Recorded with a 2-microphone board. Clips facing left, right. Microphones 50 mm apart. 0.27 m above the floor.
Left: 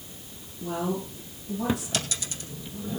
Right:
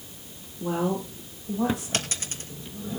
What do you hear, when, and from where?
0.6 s a woman speaking: 45° right (ahead or behind), 9.5 m
1.9 s a dropped coin: 45° right (ahead or behind), 2.5 m